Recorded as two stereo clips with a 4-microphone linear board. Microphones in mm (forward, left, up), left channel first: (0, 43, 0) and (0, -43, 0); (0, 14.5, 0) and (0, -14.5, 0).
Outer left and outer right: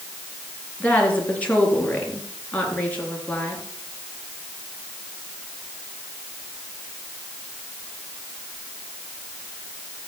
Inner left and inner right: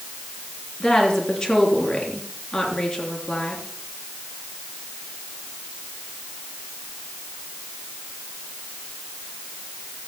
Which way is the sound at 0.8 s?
20° left (ahead or behind).